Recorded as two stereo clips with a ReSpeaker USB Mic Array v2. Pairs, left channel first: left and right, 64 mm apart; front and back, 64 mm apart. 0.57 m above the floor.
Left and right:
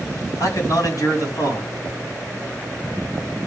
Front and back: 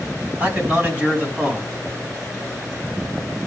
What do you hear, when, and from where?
0.4 s a man speaking: 120° left, 5.5 m